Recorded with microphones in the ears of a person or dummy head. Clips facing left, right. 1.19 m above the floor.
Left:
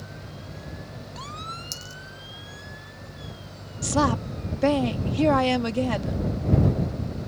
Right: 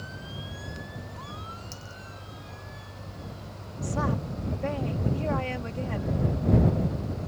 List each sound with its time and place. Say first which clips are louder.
1.7 s a dropped coin: left 1 dB; 55° left (ahead or behind)
3.8 s a woman speaking: left 6 dB; 90° left